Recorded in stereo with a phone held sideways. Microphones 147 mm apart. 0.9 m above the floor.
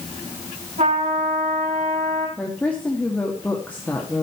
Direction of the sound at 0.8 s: 60° right (ahead or behind).